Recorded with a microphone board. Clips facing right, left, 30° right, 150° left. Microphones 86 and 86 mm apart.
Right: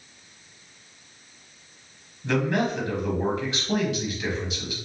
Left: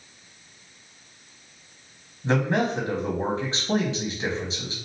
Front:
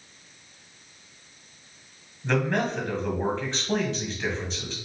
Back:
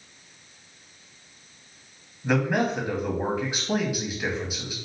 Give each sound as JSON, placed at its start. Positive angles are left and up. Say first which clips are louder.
{"t": 2.2, "sound": "a man speaking", "louder": "left 1 dB, back 2 dB", "azimuth_deg": 80, "distance_m": 1.2}